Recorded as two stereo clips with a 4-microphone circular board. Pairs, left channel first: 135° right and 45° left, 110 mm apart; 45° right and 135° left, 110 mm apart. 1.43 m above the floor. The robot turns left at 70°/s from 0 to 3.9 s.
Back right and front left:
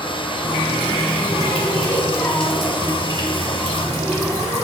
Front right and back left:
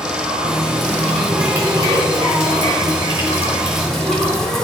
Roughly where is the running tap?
Right.